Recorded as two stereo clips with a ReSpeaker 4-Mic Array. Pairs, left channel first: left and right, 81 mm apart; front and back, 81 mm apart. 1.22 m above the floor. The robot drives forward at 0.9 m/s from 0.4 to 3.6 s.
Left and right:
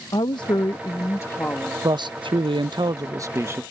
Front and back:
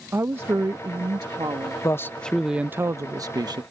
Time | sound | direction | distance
0.1 | a woman speaking | 120° left | ?
1.8 | a man speaking | 55° right | ?